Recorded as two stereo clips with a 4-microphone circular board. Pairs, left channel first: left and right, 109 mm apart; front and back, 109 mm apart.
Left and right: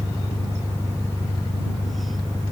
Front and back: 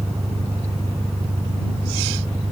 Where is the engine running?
155° left.